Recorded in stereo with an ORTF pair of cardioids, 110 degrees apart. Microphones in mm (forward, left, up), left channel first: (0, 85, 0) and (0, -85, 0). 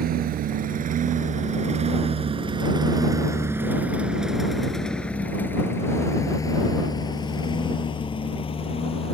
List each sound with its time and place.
0.0 s a lawn mower: 65° right; by 9.2 s 35° left